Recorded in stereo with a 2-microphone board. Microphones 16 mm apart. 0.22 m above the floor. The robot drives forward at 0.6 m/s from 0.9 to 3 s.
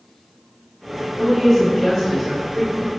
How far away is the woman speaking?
About 1.1 m.